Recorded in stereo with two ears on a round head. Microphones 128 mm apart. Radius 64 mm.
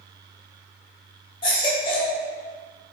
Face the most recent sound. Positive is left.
turn(degrees=40)  # may be behind; listen again after turning